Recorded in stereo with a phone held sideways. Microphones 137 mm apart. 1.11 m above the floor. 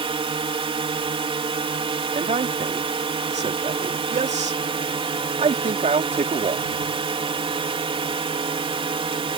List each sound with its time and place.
0.0 s a drone: 40° right (ahead or behind)
2.1 s a man speaking: 50° right (ahead or behind)